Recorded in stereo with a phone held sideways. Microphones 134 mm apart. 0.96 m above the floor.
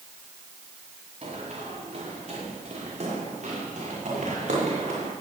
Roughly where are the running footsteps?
Right.